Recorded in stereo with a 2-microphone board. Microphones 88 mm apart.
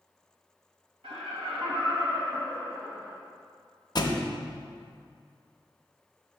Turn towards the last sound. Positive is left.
turn(degrees=50)  # may be behind; listen again after turning